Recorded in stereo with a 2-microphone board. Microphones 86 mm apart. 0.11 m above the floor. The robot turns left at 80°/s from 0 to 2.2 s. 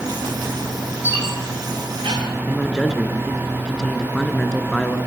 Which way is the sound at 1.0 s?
25° right (ahead or behind).